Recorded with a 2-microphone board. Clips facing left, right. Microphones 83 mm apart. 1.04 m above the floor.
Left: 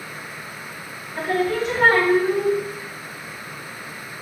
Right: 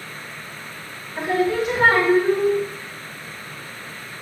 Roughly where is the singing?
Centre.